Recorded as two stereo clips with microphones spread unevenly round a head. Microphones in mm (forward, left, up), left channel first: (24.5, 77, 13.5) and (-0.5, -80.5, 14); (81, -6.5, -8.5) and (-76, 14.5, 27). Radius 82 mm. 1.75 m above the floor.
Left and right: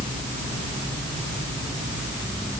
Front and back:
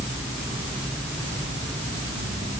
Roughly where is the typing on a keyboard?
I don't hear typing on a keyboard.